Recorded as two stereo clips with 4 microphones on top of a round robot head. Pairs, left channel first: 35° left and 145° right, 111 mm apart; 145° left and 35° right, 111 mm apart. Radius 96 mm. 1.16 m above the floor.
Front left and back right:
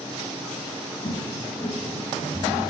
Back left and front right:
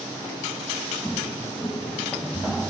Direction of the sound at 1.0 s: 65° left.